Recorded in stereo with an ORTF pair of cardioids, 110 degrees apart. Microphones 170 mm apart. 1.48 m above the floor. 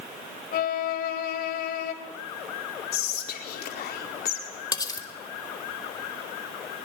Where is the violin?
60° left, 4 m.